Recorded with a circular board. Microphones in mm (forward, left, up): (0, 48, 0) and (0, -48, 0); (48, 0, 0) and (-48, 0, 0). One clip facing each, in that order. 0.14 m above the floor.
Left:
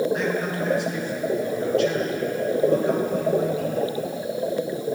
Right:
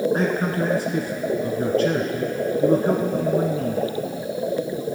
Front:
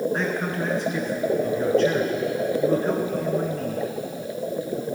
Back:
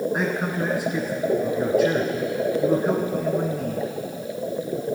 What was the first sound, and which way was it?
A man speaking, 100° right.